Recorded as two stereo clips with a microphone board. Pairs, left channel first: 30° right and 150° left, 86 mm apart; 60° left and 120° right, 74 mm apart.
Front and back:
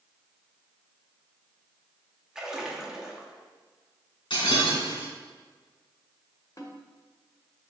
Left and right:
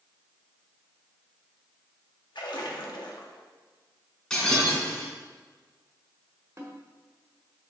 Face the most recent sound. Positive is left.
turn(degrees=-75)